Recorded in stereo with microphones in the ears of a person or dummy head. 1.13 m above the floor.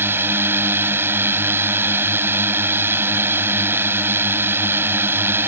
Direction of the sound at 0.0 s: 10° right (ahead or behind).